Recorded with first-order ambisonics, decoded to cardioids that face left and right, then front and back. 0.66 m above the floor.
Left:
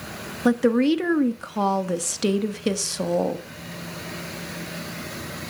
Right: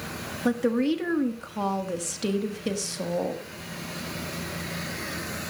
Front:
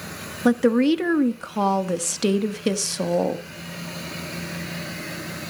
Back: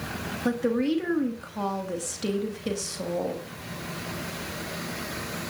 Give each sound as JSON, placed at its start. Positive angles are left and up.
{"t": 0.5, "sound": "a woman speaking", "azimuth_deg": 35, "distance_m": 1.1}